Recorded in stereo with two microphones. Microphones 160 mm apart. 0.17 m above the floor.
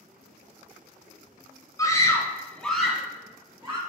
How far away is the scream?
About 1.5 m.